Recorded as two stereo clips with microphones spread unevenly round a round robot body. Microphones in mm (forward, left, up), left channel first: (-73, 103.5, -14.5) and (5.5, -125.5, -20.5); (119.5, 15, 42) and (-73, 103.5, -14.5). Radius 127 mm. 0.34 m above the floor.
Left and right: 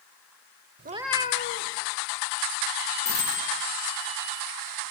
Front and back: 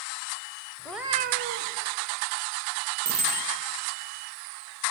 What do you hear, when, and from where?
0.8 s a cat meowing: 105° right, 0.6 m; by 1.8 s 140° left, 1.1 m
3.0 s a bicycle bell: 75° left, 9.5 m